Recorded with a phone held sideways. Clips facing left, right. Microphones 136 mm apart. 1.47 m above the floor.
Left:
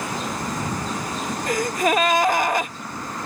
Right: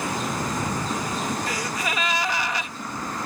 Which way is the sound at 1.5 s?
50° left (ahead or behind).